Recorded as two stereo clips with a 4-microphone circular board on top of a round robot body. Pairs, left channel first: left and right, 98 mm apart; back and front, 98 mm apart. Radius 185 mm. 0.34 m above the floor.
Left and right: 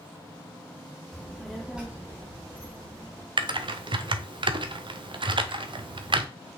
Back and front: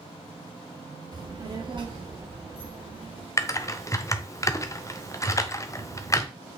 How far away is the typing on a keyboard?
About 0.9 m.